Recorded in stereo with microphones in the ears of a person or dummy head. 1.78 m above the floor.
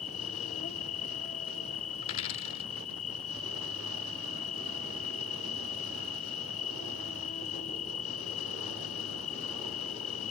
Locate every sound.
0.0 s an insect: 40° left (ahead or behind)
2.0 s a dropped coin: 35° left (ahead or behind)